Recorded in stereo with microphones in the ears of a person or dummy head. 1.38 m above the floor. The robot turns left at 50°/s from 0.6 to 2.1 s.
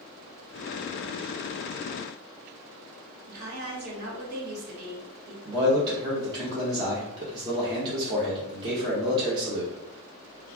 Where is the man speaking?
25° right (ahead or behind), 0.7 m.